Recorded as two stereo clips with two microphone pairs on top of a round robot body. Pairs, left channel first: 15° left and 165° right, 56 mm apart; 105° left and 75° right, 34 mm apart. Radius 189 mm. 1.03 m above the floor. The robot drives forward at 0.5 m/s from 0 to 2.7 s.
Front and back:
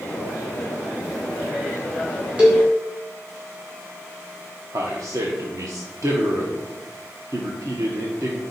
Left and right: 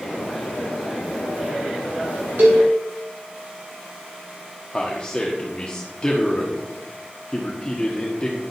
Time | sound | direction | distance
2.4 | a cowbell | 100° right | 1.9 m
4.7 | a man speaking | 170° left | 1.1 m